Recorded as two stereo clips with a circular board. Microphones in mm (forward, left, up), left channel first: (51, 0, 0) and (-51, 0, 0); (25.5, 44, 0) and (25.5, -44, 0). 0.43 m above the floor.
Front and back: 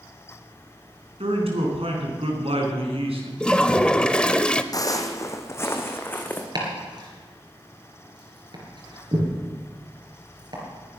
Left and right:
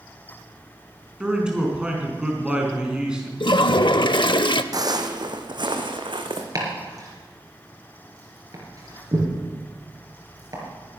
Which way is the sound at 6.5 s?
135° right.